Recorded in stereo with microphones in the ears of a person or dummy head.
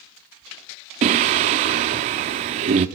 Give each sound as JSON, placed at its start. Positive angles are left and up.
{"t": 1.0, "sound": "singing", "side_deg": -35, "distance_m": 0.9}